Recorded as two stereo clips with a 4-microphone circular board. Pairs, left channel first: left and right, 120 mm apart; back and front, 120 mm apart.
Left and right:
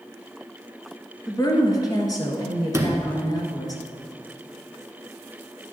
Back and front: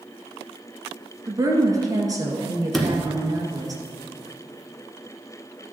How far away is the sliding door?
About 1.3 m.